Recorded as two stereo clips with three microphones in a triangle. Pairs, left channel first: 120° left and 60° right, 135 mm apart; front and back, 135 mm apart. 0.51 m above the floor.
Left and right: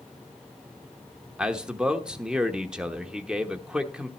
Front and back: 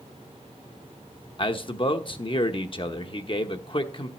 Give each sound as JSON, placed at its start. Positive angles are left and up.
{"t": 1.4, "sound": "a man speaking", "azimuth_deg": 20, "distance_m": 0.9}